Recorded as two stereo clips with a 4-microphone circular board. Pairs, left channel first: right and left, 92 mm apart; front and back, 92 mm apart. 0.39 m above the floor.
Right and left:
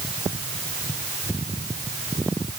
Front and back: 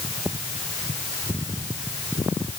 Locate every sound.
Only background noise.